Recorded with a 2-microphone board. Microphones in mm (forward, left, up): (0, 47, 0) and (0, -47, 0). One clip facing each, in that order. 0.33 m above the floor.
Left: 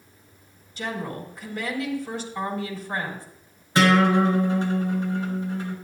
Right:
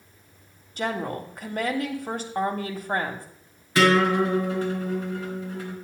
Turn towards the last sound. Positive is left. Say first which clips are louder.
# left 1 dB
turn(degrees=25)  # may be behind; listen again after turning